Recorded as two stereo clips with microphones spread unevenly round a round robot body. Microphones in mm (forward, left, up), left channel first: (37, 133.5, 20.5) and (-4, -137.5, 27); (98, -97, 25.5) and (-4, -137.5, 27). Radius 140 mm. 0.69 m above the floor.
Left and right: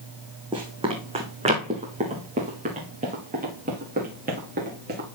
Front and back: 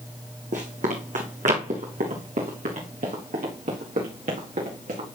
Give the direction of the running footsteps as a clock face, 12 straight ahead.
6 o'clock.